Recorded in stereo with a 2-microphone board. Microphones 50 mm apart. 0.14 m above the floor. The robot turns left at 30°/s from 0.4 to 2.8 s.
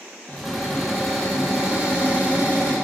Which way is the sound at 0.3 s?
20° left.